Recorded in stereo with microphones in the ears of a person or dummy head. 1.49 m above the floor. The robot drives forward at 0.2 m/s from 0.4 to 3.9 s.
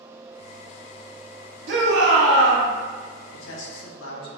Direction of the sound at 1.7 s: 70° right (ahead or behind).